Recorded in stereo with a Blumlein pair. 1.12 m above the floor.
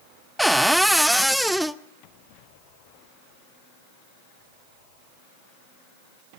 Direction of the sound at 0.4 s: Straight ahead.